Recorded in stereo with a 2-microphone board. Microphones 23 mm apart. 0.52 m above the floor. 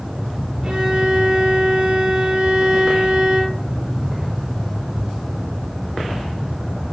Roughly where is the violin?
Right.